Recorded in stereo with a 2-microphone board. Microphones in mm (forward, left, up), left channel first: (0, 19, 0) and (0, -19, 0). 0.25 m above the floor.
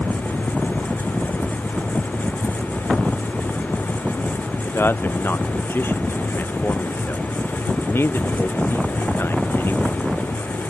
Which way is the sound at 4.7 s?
70° left (ahead or behind).